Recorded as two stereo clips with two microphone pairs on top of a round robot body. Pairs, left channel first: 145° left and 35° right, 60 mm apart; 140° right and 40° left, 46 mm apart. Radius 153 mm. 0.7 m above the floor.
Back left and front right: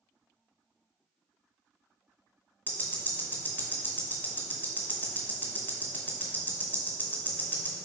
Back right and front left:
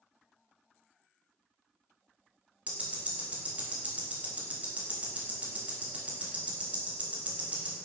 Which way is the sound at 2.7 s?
90° left.